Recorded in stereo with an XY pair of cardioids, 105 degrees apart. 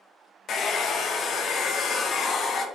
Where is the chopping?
I don't hear chopping.